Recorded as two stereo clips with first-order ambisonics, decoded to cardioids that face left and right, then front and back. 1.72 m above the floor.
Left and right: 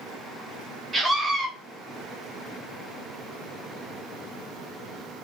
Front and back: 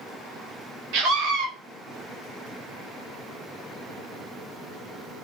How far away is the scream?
About 1.0 m.